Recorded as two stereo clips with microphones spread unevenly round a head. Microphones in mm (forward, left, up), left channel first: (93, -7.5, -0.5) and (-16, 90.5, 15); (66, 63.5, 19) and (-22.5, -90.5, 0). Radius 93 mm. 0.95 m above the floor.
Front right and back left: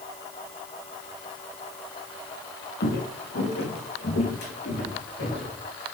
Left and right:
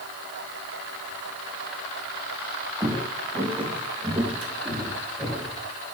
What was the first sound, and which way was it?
Footsteps, 40° right.